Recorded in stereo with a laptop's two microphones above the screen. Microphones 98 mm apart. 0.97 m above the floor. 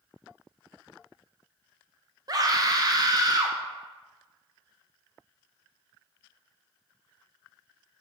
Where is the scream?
40° right (ahead or behind), 0.6 m.